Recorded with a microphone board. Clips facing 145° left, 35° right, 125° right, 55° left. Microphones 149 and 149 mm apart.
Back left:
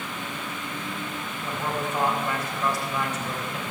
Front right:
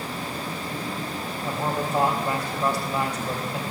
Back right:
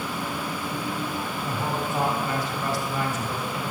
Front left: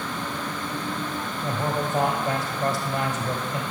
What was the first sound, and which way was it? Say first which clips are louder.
A man speaking: front right 2 dB, front left 4 dB; 35° left.